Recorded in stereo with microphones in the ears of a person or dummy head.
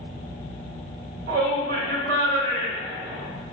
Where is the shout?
60° right (ahead or behind), 1.8 m.